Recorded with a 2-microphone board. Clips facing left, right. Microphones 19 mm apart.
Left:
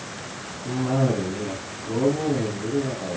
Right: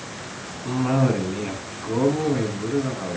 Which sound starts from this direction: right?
A cough, at 0.7 s.